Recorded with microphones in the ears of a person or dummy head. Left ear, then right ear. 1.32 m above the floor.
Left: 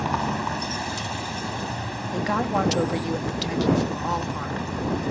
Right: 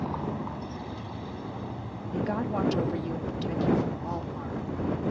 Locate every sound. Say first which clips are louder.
0.0 s a vehicle: left 8 dB; 70° left (ahead or behind)
2.1 s a woman speaking: left 6 dB; 40° left (ahead or behind)